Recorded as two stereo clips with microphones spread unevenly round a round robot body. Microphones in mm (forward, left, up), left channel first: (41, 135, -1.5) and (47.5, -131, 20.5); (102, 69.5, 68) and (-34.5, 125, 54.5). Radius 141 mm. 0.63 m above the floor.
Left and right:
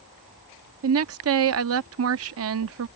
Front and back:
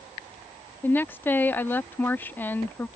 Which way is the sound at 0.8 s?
100° right.